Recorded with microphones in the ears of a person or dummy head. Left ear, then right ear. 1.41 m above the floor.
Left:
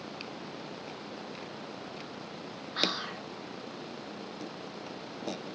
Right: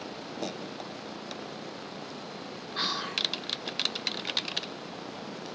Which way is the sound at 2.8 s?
5° right (ahead or behind).